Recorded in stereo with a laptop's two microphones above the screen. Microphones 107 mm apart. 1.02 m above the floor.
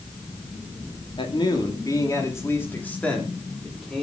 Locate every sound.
1.2 s a man speaking: 45° left (ahead or behind), 2.5 m; by 4.0 s 5° right (ahead or behind), 3.5 m